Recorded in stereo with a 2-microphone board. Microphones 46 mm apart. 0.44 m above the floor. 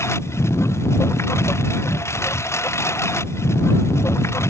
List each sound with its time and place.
0.0 s a lawn mower: 75° left (ahead or behind)